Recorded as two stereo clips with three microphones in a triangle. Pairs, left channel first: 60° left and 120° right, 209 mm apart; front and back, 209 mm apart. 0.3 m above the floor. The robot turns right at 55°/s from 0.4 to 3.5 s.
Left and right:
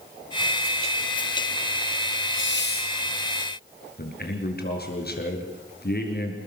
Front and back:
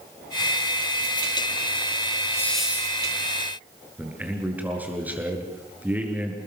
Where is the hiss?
75° left, 4 m; by 2.9 s 110° left, 4 m.